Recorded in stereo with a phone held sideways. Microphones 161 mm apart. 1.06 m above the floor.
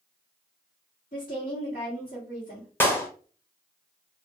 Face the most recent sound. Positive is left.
turn(degrees=15)  # may be behind; listen again after turning